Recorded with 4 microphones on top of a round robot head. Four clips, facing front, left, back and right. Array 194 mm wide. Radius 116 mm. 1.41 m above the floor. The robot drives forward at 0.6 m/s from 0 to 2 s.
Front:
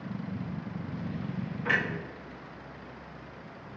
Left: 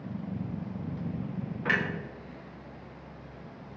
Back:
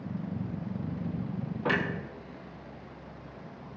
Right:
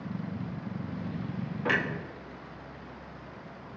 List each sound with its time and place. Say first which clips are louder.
1.6 s a clunk: right 1 dB, back 1 dB; 145° right, 1.4 m; by 1.8 s 150° right, 1.5 m